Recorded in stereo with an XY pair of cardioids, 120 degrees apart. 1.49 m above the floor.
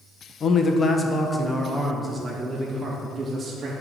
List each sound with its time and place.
0.4 s a man speaking: 45° left, 1.0 m; by 3.7 s 30° right, 2.5 m